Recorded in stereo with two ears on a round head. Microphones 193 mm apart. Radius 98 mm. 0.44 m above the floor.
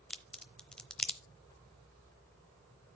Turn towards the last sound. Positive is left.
turn(degrees=5)  # may be behind; listen again after turning